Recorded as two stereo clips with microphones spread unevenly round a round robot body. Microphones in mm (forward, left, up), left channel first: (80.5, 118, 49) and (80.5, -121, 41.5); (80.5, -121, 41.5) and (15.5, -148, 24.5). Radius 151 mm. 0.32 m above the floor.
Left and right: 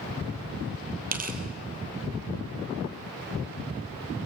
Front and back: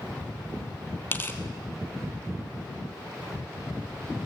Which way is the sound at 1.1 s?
35° right.